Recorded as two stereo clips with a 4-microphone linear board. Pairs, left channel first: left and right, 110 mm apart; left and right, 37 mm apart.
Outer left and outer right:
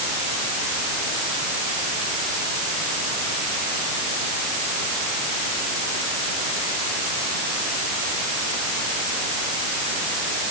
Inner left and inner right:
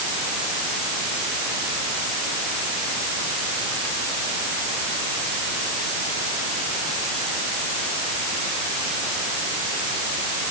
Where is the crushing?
No crushing in this recording.